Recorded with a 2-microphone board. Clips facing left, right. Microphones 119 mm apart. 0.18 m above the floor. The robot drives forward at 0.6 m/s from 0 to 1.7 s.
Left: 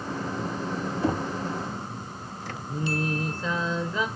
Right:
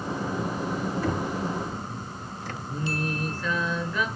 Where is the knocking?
25° left (ahead or behind), 0.7 m.